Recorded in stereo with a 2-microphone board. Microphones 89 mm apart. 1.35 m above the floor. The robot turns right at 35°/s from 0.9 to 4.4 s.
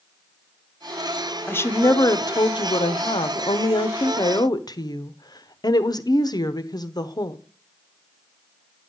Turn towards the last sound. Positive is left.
turn(degrees=125)